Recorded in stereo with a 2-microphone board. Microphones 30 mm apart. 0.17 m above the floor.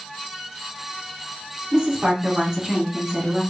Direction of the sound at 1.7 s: 25° right (ahead or behind).